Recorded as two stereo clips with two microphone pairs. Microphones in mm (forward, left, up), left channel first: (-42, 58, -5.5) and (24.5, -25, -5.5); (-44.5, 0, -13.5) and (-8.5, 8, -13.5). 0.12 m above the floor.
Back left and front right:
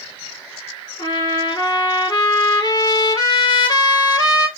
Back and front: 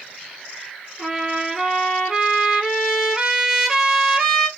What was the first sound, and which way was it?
A trumpet, 95° left.